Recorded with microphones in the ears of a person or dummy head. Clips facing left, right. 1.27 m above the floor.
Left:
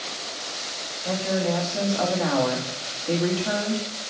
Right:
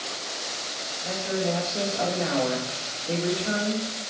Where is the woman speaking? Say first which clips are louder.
Left 3 dB; 65° left (ahead or behind), 2.5 m.